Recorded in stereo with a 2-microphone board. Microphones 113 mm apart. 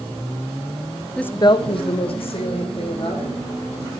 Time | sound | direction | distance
1.2 | a woman speaking | 5° left (ahead or behind) | 0.5 m